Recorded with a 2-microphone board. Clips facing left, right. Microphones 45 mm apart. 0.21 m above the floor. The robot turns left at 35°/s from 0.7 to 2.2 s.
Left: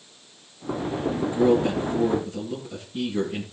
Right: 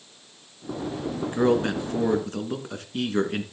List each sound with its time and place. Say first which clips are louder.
1.2 s a man speaking: left 1 dB; 60° right, 2.5 m; by 3.4 s 95° right, 2.5 m